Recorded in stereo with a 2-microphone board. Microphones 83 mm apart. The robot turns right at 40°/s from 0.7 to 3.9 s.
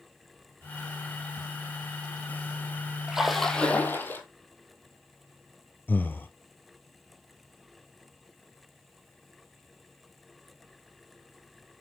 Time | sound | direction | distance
3.1 | a splash | 10° right | 1.7 m
5.9 | breathing | 25° left (ahead or behind) | 0.8 m